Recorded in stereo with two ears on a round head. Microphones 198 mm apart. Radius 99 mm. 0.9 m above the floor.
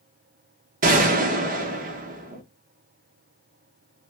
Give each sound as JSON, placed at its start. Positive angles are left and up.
{"t": 0.8, "sound": "a gunshot", "side_deg": -40, "distance_m": 0.8}